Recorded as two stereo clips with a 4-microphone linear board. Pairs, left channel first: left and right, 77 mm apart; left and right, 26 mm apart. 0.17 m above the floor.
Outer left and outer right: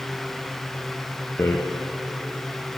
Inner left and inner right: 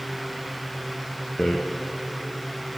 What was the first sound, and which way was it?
A rattle, 30° left (ahead or behind).